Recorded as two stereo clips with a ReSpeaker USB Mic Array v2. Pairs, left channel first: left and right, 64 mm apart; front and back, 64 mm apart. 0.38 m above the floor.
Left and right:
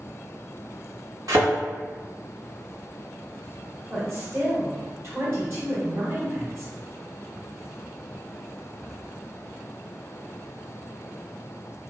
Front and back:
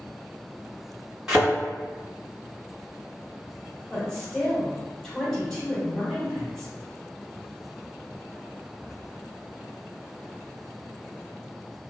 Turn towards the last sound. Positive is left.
turn(degrees=-85)